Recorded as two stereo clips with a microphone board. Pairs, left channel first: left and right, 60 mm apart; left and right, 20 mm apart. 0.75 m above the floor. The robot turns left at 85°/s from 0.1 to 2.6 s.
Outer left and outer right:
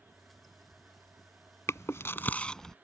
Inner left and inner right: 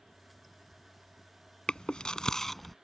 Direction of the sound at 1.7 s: 60° left (ahead or behind).